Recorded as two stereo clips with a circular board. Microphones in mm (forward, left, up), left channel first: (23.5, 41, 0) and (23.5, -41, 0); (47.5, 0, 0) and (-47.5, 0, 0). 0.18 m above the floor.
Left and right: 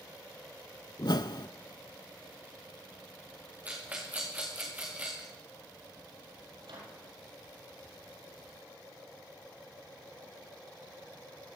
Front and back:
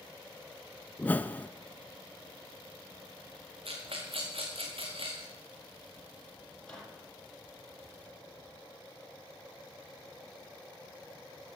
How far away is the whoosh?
About 0.5 m.